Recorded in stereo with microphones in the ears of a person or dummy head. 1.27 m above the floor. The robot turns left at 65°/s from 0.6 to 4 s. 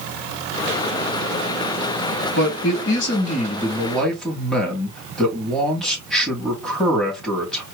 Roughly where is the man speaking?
Left.